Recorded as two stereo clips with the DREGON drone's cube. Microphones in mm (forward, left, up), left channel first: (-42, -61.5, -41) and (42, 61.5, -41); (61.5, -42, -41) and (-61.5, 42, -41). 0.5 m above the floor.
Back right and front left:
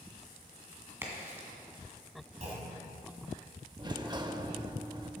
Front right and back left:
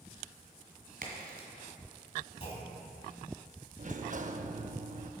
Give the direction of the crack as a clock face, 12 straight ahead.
8 o'clock.